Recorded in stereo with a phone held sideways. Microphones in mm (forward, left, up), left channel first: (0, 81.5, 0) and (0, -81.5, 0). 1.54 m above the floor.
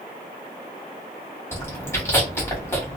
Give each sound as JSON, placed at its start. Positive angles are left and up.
{"t": 1.5, "sound": "chewing", "side_deg": 15, "distance_m": 1.4}